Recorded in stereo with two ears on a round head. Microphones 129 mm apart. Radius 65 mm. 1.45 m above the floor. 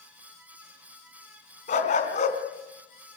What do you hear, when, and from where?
1.7 s a dog barking: 50° left (ahead or behind), 3.5 m